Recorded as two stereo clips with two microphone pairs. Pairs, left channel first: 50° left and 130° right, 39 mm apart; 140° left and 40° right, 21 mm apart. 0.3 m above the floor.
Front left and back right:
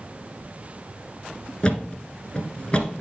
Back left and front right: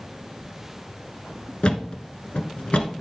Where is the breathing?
No breathing in this recording.